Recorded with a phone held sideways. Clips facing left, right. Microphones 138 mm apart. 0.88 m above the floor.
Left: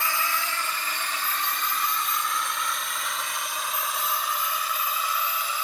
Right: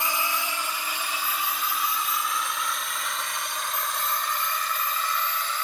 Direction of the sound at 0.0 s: 20° right (ahead or behind).